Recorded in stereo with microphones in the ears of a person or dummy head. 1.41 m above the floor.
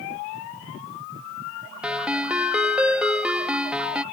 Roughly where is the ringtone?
Centre.